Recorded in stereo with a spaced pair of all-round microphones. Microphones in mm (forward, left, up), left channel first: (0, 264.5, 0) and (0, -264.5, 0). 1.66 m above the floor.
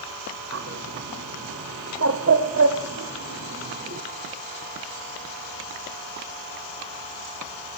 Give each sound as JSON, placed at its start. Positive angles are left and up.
{"t": 0.5, "sound": "a bird", "side_deg": -25, "distance_m": 0.6}